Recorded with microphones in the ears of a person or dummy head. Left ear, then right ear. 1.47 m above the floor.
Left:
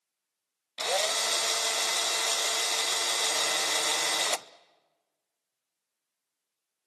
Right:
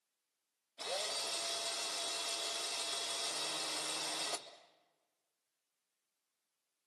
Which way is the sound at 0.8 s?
75° left (ahead or behind).